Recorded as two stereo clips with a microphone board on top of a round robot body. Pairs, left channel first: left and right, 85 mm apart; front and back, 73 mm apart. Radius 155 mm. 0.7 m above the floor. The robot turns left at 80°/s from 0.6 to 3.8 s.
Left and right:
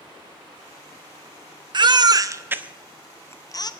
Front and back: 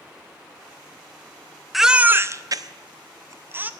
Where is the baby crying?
90° right, 0.8 m; by 3.7 s 115° left, 0.8 m.